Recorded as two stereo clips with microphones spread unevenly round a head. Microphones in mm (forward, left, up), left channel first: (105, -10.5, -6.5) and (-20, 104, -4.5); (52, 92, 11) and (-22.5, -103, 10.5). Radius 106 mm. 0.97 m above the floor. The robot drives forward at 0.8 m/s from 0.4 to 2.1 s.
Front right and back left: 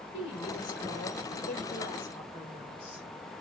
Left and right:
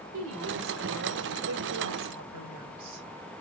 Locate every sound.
0.1 s a woman speaking: 85° right, 3 m; by 3.1 s 110° right, 3.5 m